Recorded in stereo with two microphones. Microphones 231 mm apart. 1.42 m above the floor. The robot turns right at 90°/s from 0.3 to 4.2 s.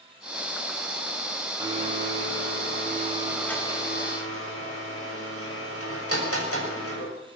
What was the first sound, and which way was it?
A blender, 165° right.